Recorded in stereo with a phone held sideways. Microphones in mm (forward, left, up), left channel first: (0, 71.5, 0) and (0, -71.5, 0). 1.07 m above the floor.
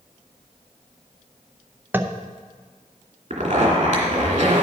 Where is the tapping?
15° right (ahead or behind), 0.5 m.